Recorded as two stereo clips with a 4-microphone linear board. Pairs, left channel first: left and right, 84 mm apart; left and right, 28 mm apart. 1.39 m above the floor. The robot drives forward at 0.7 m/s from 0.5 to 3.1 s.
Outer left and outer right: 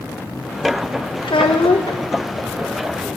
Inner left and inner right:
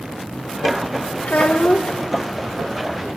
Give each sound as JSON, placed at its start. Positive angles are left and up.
{"t": 1.2, "sound": "a child speaking", "side_deg": 75, "distance_m": 1.2}